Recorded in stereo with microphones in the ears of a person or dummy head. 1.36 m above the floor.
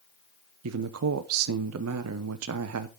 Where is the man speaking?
80° right, 0.7 m.